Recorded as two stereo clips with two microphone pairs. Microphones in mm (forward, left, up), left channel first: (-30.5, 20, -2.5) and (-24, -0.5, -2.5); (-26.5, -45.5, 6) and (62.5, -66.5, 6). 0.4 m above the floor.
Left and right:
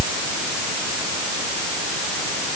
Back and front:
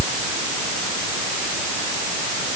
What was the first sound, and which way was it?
Only background noise.